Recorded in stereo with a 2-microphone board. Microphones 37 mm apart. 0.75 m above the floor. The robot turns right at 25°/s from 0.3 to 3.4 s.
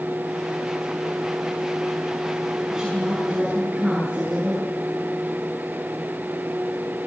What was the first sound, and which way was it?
A woman speaking, 10° right (ahead or behind).